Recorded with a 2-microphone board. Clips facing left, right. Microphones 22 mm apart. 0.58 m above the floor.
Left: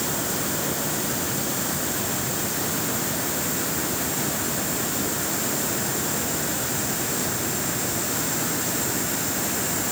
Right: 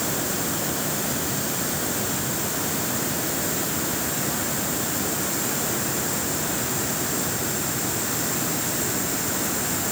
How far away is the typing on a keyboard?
No typing on a keyboard in this recording.